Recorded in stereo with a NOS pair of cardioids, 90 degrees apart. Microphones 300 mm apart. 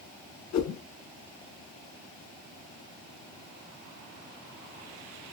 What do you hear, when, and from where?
0.5 s a whoosh: 70° left, 1.7 m